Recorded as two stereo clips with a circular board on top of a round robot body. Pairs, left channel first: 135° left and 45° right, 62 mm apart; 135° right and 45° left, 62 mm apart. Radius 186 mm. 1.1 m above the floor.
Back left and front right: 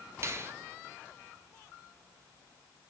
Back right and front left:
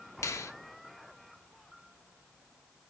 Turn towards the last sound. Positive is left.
turn(degrees=-95)